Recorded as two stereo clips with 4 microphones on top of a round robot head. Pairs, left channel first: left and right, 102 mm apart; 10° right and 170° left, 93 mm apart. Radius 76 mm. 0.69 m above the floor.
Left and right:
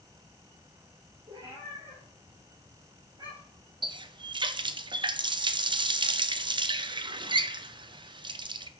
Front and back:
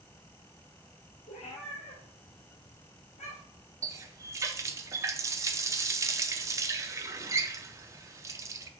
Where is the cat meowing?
30° right, 4 m.